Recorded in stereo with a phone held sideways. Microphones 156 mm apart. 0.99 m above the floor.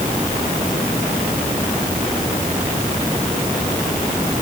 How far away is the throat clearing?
I don't hear throat clearing.